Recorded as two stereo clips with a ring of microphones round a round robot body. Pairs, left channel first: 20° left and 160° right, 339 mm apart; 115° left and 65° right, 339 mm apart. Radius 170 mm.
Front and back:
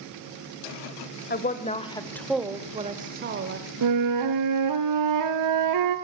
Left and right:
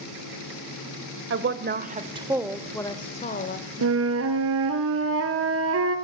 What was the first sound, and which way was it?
A woman speaking, 30° right.